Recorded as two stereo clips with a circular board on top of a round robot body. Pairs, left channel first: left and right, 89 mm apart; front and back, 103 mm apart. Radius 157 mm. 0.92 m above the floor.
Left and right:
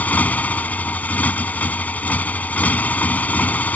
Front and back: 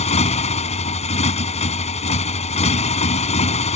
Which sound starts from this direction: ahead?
A motorcycle, at 0.0 s.